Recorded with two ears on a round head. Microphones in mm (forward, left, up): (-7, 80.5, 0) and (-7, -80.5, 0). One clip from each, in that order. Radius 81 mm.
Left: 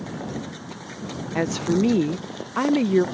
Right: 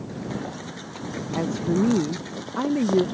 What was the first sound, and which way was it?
A woman speaking, 55° left (ahead or behind).